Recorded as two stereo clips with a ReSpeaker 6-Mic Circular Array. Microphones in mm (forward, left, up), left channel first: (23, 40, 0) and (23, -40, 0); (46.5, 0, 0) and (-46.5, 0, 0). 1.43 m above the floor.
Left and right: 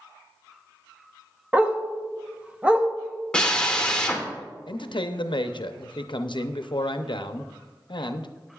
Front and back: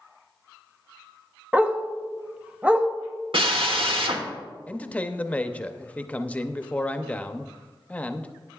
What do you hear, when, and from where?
1.5 s a dog barking: 130° right, 0.8 m
3.3 s a drill: 170° left, 1.3 m
4.7 s a man speaking: 75° left, 0.6 m